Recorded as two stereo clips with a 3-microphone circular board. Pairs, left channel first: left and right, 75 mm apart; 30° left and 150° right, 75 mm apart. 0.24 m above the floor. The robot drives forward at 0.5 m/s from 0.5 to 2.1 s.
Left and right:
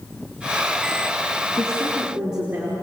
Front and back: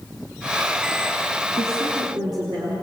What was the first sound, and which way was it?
A woman speaking, 170° right.